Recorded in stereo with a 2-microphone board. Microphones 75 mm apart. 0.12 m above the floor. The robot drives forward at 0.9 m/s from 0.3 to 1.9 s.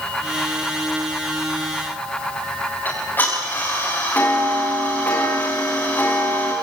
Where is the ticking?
30° left (ahead or behind), 8 m.